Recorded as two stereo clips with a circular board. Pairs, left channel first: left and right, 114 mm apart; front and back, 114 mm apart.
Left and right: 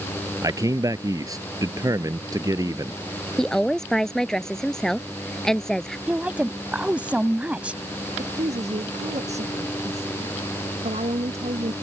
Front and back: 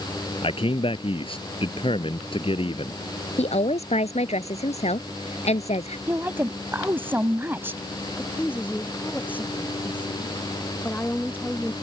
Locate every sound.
0.4 s a man speaking: 35° right
3.4 s a woman speaking: 5° left
6.1 s a woman speaking: 150° right
8.2 s a woman speaking: 75° right